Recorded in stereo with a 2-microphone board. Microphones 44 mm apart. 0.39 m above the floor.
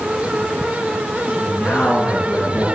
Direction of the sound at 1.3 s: 60° left (ahead or behind).